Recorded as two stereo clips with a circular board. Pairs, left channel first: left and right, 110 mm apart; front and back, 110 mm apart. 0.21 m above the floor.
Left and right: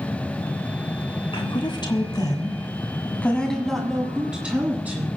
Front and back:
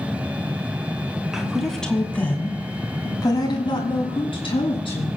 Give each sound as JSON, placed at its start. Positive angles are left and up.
{"t": 1.3, "sound": "a woman speaking", "azimuth_deg": 95, "distance_m": 2.5}